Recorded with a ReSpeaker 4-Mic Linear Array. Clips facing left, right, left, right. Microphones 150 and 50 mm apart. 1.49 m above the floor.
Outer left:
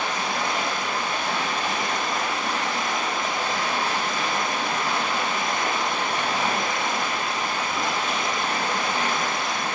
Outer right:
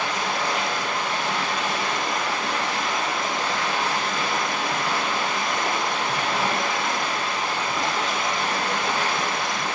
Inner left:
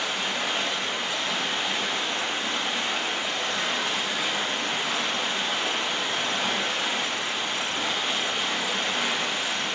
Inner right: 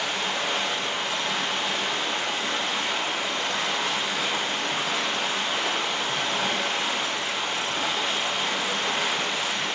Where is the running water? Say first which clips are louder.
Outer right 1 dB, inner right 1 dB; 75° right (ahead or behind), 6 m.